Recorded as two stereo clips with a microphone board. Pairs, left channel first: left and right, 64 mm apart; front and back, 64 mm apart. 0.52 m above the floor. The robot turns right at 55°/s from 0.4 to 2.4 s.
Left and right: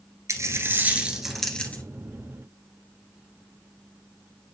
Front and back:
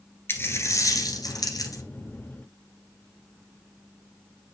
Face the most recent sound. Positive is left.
turn(degrees=60)